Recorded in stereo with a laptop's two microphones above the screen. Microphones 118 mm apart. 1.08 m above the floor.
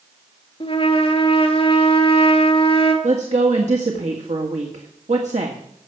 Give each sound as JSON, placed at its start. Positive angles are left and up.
{"t": 0.6, "sound": "a trumpet", "side_deg": 55, "distance_m": 2.5}
{"t": 3.0, "sound": "a woman speaking", "side_deg": -85, "distance_m": 1.8}